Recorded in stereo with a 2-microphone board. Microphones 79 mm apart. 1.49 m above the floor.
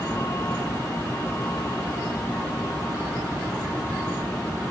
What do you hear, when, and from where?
0.0 s a vehicle: 35° left (ahead or behind); by 4.7 s 25° left (ahead or behind)